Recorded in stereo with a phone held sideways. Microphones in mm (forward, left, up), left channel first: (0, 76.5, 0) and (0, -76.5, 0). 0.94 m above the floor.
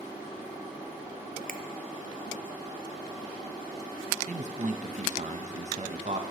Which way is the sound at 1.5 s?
70° right (ahead or behind).